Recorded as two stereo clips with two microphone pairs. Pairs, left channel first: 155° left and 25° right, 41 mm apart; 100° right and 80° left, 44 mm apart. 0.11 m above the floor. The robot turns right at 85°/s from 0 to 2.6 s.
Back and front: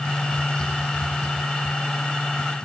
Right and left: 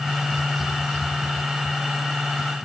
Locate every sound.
Only background noise.